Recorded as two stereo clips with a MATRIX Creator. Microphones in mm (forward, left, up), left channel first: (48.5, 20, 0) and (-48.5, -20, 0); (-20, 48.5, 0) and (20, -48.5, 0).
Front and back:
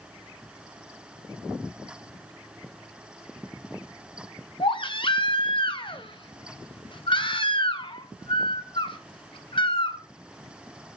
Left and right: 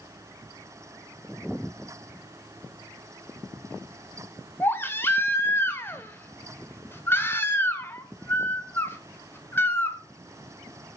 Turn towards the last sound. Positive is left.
turn(degrees=45)